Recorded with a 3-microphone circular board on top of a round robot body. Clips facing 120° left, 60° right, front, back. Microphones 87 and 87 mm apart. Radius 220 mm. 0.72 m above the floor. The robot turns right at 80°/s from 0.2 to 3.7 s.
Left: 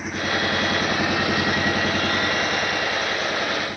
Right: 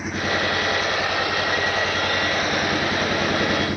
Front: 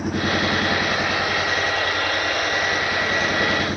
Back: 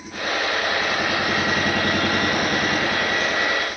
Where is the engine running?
30° left; by 3.8 s 50° right.